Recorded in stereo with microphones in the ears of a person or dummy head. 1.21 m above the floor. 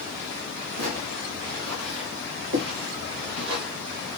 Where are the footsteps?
75° right (ahead or behind), 5.5 m; by 3.6 s 65° right (ahead or behind), 7.5 m.